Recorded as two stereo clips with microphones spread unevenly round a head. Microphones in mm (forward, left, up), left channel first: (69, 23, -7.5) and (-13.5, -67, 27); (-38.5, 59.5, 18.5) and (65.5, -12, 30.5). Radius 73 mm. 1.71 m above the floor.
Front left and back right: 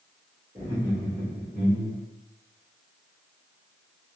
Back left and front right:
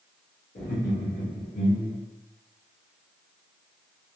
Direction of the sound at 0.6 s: 160° left.